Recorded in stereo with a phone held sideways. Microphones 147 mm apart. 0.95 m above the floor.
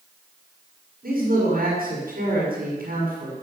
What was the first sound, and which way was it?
A man speaking, 85° right.